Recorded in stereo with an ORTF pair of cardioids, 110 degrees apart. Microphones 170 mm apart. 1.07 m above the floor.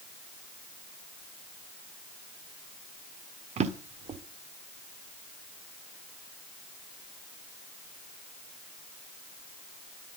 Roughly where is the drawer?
Ahead right.